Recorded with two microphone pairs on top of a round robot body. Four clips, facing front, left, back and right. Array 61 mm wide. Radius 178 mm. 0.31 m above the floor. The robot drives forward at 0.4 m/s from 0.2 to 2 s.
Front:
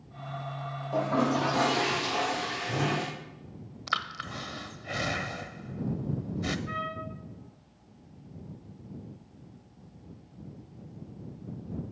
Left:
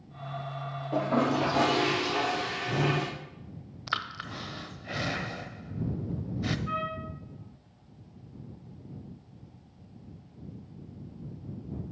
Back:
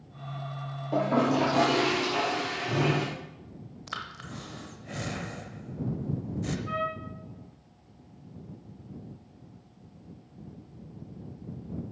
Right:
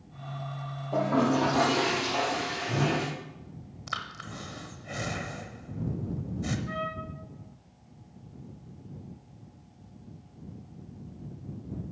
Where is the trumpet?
125° left, 2 m.